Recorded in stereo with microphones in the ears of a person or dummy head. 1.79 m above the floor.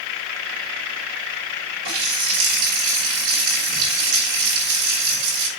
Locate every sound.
1.9 s a running tap: 75° right (ahead or behind), 5.5 m